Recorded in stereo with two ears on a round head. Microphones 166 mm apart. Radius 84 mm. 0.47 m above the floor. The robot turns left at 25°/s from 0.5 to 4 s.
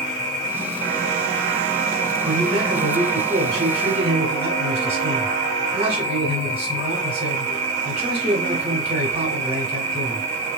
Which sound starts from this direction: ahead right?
An insect, at 0.0 s.